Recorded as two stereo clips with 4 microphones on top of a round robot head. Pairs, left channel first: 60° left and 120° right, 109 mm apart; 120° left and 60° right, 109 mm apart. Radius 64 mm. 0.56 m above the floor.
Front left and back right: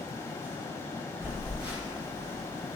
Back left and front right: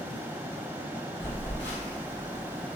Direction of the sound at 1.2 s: 170° left.